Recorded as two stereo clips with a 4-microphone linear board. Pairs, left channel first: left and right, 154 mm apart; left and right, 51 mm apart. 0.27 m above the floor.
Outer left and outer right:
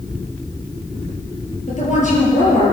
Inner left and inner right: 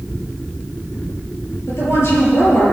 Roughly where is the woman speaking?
Left.